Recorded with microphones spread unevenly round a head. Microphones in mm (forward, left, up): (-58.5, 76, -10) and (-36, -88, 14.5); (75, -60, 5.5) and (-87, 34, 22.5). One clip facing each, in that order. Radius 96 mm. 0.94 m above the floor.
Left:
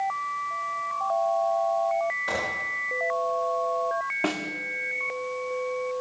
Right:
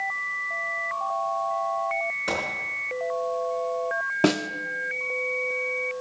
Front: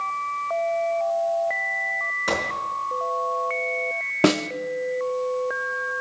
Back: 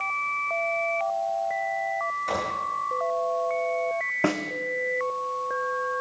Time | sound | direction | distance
2.3 | a gunshot | 35° right | 6.5 m
4.2 | a snare drum | 65° right | 0.6 m